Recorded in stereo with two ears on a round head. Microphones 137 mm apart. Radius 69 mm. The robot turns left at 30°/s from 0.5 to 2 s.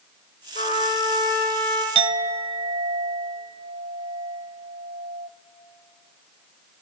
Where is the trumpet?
45° left, 3 m; by 1.9 s 10° left, 3 m.